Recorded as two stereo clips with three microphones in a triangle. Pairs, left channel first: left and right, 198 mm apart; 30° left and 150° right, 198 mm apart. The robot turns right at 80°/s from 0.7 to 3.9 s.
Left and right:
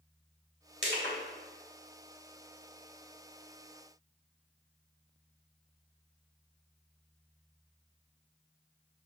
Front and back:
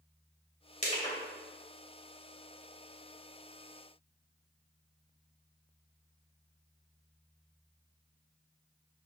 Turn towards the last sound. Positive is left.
turn(degrees=-35)